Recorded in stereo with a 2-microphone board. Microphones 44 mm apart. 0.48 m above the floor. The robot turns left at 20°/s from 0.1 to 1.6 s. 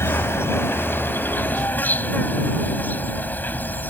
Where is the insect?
75° left; by 3.9 s 45° left.